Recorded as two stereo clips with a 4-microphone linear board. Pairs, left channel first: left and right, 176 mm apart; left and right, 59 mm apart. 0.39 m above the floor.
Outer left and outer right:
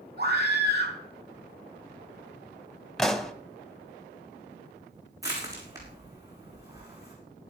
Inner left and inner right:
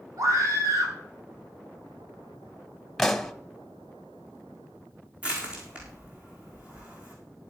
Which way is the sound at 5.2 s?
20° right (ahead or behind).